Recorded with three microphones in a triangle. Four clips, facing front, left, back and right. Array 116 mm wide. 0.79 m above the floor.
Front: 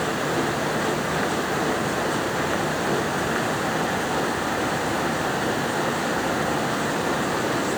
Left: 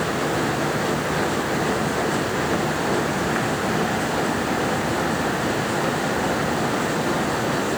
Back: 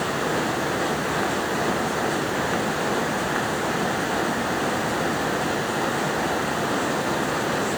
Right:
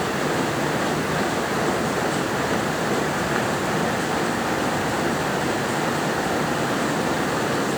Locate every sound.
Only background noise.